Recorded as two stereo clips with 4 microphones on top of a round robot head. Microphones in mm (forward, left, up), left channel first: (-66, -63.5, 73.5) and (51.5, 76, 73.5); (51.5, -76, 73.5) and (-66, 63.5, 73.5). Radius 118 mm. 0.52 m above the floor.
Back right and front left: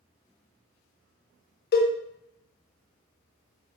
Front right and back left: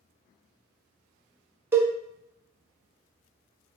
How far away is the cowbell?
About 0.6 m.